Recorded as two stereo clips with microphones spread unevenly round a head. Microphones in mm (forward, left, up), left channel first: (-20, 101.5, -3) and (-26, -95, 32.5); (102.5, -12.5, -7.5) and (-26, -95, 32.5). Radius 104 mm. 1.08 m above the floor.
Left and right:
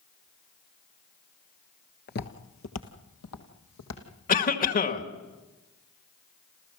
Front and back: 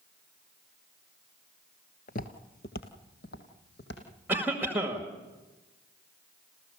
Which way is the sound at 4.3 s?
125° left.